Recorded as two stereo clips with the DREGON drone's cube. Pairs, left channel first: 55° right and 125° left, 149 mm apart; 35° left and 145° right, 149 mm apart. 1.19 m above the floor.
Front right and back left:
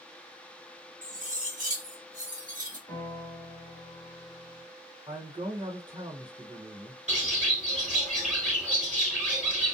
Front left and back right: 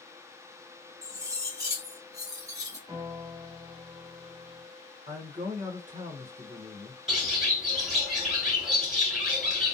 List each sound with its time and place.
1.0 s cutlery clinking: 150° left, 0.8 m
2.9 s a piano: 110° right, 1.1 m
5.1 s a man speaking: straight behind, 0.8 m
7.1 s a bird: 130° left, 1.5 m